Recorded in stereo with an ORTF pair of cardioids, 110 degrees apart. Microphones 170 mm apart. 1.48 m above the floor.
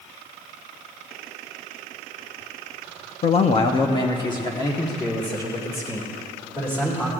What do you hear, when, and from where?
3.2 s a man speaking: 40° left, 0.7 m; by 7.1 s 15° left, 3 m